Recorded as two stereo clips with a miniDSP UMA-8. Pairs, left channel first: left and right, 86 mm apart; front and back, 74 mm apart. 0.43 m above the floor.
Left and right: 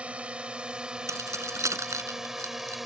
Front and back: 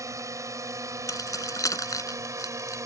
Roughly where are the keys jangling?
Ahead right.